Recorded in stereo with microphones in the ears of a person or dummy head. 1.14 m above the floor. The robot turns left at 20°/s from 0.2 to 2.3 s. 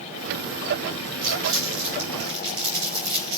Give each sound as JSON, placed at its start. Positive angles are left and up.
{"t": 1.2, "sound": "crumpling", "side_deg": -45, "distance_m": 6.0}